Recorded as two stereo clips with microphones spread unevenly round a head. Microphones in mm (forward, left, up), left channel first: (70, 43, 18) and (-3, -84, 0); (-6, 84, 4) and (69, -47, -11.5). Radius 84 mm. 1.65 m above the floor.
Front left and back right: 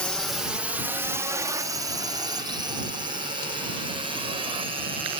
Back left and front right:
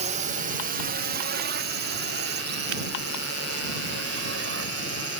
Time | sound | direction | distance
0.0 | a drone | 25° right | ?